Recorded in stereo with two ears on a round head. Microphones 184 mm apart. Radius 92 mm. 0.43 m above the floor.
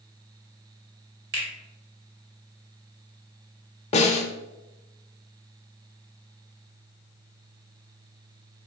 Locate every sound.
1.3 s a finger snap: 55° right (ahead or behind), 1.9 m
3.9 s a snare drum: 35° left (ahead or behind), 0.6 m